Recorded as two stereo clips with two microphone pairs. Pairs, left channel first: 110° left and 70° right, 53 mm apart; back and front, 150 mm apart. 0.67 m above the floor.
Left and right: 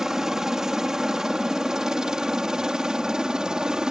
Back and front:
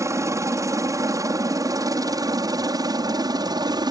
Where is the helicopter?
10° right.